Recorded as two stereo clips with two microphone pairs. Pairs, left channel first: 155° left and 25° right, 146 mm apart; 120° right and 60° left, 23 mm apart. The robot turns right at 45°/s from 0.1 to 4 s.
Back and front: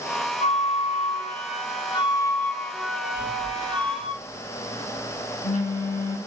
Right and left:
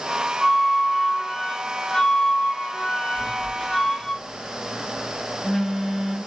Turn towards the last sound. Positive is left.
turn(degrees=170)